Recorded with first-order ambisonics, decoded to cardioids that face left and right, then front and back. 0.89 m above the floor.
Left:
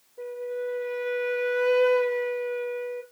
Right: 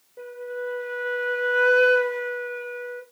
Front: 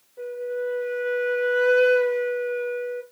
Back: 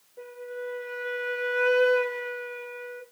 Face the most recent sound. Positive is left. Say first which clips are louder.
# left 1 dB, front 8 dB
turn(degrees=-85)